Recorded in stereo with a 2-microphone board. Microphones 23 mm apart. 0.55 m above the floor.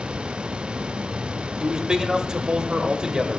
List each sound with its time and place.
1.6 s a man speaking: 30° right (ahead or behind), 0.9 m